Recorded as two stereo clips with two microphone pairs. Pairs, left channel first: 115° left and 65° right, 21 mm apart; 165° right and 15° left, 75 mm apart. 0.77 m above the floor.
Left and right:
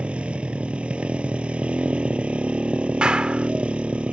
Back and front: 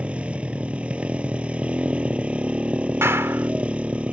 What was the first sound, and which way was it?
A motorcycle, 55° right.